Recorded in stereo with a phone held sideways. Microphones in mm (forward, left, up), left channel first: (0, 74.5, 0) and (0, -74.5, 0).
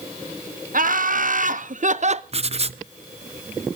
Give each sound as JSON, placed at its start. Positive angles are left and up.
{"t": 0.7, "sound": "laughter", "side_deg": -65, "distance_m": 1.6}
{"t": 2.3, "sound": "writing", "side_deg": -45, "distance_m": 0.6}